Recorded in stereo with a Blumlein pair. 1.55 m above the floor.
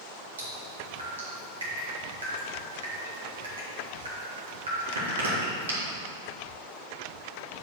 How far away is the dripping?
About 2.5 m.